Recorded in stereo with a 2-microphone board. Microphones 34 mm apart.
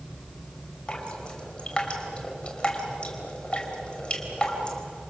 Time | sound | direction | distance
0.9 | dripping | 30° left (ahead or behind) | 3.5 m